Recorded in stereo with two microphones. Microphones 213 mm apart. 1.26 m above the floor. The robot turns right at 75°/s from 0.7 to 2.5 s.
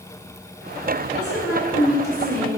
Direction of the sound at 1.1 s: 80° left.